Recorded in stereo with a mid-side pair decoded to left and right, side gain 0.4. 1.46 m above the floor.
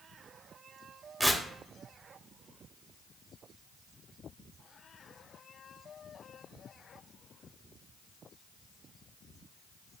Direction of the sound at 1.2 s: 5° right.